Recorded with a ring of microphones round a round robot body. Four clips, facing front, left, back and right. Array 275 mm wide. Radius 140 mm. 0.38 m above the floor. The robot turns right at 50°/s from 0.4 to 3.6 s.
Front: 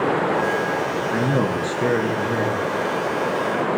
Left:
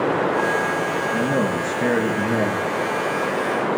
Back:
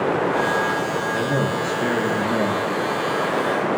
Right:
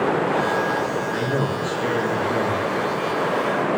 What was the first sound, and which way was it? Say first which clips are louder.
A man speaking: left 2 dB, front 3 dB; 10° left.